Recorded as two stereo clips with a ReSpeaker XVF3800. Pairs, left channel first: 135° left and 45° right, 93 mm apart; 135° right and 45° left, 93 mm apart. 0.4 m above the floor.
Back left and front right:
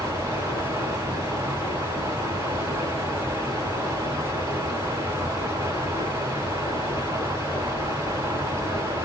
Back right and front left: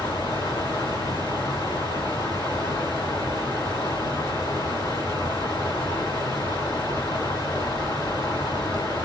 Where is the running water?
100° right, 1.9 m.